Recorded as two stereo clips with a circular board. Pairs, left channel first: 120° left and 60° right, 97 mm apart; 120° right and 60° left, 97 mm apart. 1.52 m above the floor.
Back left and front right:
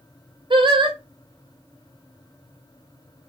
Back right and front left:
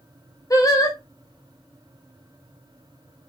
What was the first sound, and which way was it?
Singing, 70° right.